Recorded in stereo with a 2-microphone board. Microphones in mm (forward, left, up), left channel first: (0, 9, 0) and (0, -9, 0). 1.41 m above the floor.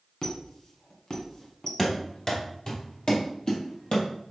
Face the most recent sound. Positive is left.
turn(degrees=55)  # may be behind; listen again after turning